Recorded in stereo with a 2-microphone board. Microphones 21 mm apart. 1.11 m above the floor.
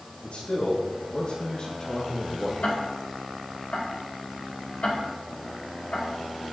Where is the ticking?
75° left (ahead or behind), 3 m.